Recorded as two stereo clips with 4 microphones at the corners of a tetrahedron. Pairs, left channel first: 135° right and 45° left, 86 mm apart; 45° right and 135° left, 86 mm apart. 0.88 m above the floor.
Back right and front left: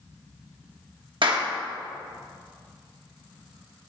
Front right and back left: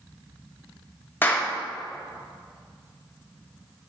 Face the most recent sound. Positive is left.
turn(degrees=20)